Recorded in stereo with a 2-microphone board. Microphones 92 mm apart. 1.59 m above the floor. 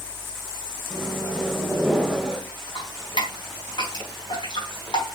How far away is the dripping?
About 4 m.